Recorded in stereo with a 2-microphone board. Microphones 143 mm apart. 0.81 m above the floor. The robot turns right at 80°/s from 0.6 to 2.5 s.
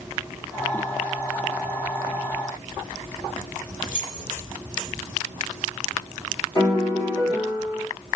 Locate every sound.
3.8 s keys jangling: 80° left, 2 m
6.5 s a piano: 25° left (ahead or behind), 1.3 m